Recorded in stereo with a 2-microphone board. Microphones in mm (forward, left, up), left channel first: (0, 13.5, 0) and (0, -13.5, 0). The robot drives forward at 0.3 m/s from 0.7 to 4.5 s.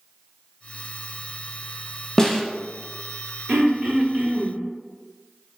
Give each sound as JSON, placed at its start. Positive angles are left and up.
{"t": 2.2, "sound": "a snare drum", "side_deg": 25, "distance_m": 0.5}
{"t": 3.5, "sound": "throat clearing", "side_deg": -35, "distance_m": 1.3}